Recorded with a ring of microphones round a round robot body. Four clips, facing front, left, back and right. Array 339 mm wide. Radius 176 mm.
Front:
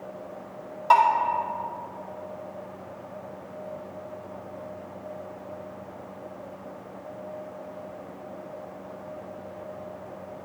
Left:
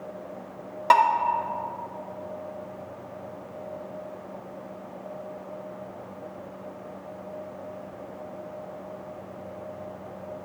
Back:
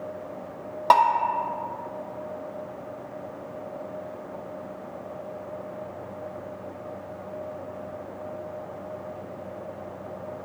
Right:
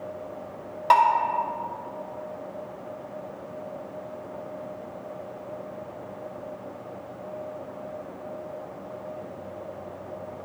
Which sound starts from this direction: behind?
Dishes clattering, at 0.9 s.